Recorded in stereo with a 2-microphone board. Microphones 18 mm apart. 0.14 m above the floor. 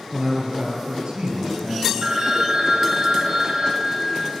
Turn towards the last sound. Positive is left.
turn(degrees=-45)  # may be behind; listen again after turning